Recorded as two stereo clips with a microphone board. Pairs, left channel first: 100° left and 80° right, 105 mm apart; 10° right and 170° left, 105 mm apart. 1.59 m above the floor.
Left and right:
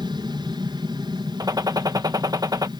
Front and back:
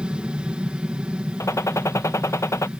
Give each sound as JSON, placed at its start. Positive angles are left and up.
{"t": 0.0, "sound": "an aircraft", "azimuth_deg": -110}
{"t": 1.4, "sound": "a gunshot", "azimuth_deg": -55}